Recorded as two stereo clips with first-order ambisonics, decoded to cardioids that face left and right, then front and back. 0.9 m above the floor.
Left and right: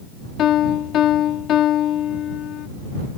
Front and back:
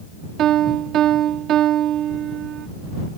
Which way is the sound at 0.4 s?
135° left.